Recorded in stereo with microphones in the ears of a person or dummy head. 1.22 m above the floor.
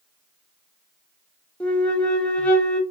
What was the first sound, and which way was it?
A flute, 5° left (ahead or behind).